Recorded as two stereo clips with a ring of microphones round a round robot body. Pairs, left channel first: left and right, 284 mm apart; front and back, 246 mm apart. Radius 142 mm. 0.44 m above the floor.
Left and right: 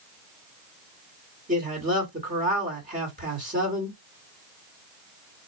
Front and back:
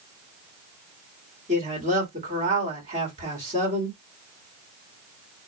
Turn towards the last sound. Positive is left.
turn(degrees=-135)